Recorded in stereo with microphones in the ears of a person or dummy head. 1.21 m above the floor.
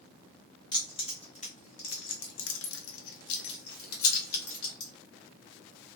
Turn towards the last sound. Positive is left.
turn(degrees=45)  # may be behind; listen again after turning